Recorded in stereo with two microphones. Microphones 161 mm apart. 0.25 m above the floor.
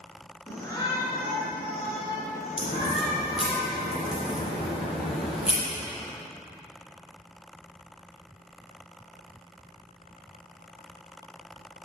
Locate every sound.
0.5 s a shout: 15° left (ahead or behind), 3.5 m; by 3.6 s 60° left (ahead or behind), 5.5 m
2.6 s a crack: 35° left (ahead or behind), 5.5 m